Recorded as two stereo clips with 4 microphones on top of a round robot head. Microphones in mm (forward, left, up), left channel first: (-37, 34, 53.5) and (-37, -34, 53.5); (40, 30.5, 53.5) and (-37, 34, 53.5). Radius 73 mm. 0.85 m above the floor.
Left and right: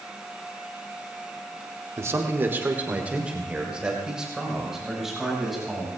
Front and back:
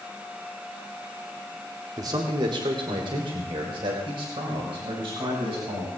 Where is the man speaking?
135° right, 1.9 m; by 5.9 s 175° right, 5.5 m.